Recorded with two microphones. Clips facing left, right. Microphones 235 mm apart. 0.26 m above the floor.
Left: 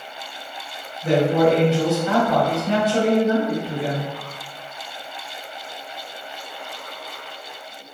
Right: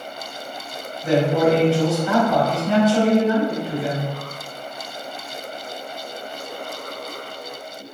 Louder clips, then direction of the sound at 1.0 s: Left 1 dB; 30° left (ahead or behind).